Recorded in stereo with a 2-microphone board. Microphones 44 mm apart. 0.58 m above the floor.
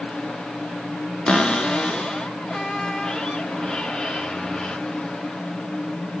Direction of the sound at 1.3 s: 15° left (ahead or behind).